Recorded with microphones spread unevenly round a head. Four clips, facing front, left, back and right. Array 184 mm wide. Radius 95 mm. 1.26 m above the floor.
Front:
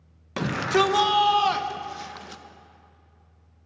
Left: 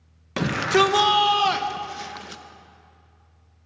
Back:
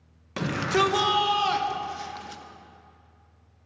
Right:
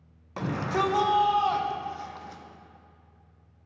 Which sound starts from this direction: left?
A shout, at 0.4 s.